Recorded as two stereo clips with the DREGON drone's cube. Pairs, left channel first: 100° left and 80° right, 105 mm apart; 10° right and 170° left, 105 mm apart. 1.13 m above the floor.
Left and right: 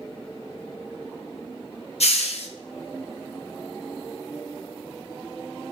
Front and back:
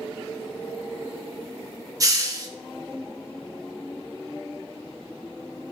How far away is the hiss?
About 0.8 m.